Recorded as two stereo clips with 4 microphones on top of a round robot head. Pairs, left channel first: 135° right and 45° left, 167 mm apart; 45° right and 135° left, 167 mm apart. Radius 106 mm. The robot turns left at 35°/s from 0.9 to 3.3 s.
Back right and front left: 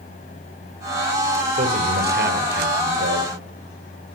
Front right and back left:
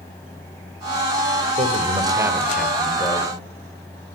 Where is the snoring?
I don't hear snoring.